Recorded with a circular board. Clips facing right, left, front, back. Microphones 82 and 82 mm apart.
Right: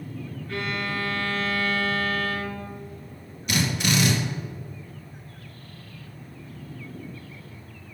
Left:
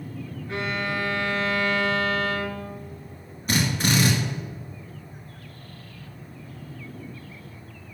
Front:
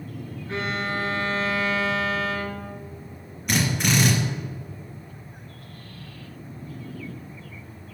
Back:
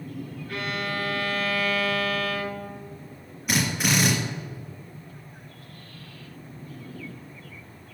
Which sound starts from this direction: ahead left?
A violin, at 0.5 s.